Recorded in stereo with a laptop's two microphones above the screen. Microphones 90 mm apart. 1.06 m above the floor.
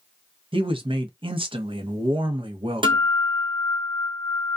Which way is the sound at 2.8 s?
75° right (ahead or behind).